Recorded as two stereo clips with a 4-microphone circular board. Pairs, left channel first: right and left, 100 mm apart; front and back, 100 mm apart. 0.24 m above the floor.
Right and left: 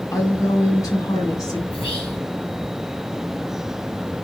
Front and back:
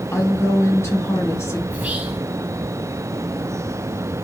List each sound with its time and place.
0.1 s a woman speaking: 50° right, 1.3 m
1.7 s whispering: 105° right, 3.5 m